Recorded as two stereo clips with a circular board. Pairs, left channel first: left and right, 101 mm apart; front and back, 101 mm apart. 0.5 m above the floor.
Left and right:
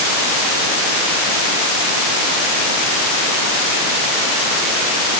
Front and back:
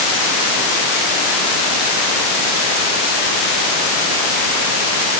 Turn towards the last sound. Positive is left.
No sound to turn to.